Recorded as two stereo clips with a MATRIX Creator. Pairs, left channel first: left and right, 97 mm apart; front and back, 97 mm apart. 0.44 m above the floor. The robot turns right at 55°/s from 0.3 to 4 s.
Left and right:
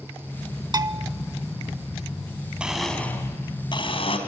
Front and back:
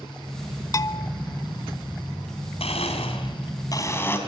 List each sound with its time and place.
0.7 s a bell: 50° right, 0.8 m; by 1.1 s 30° right, 0.8 m
2.6 s a blender: 10° right, 3.5 m; by 4.2 s 65° left, 3.5 m